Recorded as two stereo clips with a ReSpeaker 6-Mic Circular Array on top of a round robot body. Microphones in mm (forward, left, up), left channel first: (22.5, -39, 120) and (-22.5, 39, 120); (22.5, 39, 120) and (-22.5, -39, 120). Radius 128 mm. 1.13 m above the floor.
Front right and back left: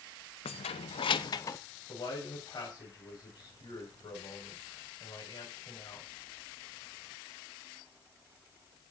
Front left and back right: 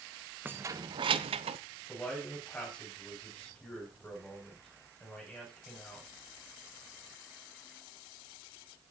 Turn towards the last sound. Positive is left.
turn(degrees=-20)